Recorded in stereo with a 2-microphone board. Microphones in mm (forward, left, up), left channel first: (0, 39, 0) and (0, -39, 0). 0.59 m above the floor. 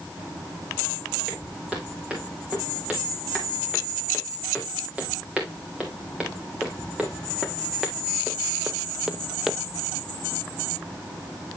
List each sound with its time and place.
1.3 s footsteps: 15° right (ahead or behind), 5.5 m; by 9.5 s 5° right (ahead or behind), 0.7 m